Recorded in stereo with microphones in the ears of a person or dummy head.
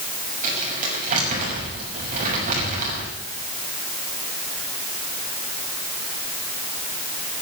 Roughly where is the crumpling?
Right.